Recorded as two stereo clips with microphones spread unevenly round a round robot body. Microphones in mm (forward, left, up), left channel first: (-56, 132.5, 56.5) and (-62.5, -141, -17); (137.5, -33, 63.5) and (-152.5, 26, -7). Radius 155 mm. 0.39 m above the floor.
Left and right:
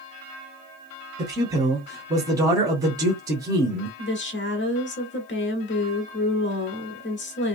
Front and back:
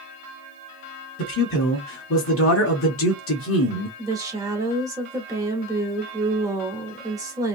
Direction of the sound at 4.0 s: 130° left.